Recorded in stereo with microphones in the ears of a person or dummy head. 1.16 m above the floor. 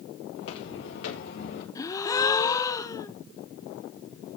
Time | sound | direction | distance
0.3 | footsteps | 65° left (ahead or behind) | 6 m
1.8 | a gasp | 20° left (ahead or behind) | 1.0 m